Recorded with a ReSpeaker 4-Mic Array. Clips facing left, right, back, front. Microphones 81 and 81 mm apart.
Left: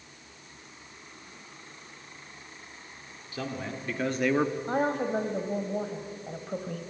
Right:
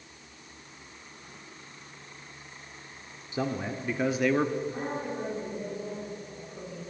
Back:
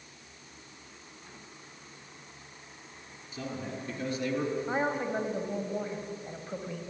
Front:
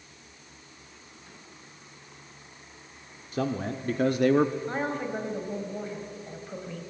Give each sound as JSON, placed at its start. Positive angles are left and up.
{"t": 3.3, "sound": "a man speaking", "azimuth_deg": -25, "distance_m": 1.7}
{"t": 4.7, "sound": "a woman speaking", "azimuth_deg": 100, "distance_m": 3.5}